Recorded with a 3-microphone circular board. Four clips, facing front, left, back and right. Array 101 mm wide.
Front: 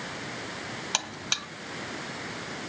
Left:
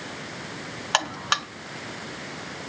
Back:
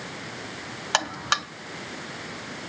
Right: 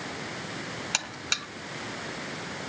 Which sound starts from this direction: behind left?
A buzzer, at 0.9 s.